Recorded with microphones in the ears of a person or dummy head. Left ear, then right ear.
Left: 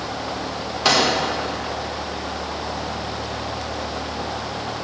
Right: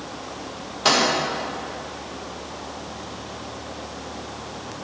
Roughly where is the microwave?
Centre.